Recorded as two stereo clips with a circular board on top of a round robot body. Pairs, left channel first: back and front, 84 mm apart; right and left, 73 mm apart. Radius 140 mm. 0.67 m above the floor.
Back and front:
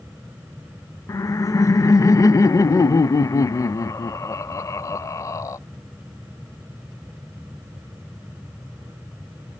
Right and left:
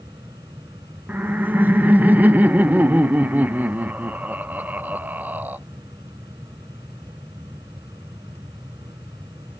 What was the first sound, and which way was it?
Laughter, 145° left.